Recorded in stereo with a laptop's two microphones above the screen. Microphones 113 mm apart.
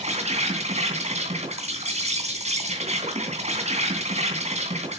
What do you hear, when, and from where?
0.0 s an insect: 75° right (ahead or behind), 3 m